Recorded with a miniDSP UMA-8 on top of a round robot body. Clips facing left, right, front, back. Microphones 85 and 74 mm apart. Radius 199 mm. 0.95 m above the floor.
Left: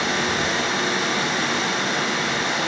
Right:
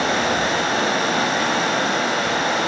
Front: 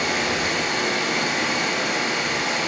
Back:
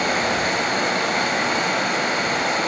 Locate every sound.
0.0 s running water: 135° right, 2 m